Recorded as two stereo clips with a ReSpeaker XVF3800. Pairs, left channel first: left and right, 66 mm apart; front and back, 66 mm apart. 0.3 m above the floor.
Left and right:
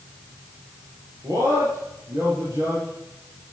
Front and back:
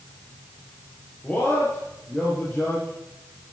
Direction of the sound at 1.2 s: 70° right.